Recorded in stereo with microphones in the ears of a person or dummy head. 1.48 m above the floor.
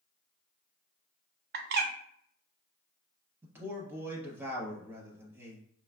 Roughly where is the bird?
Right.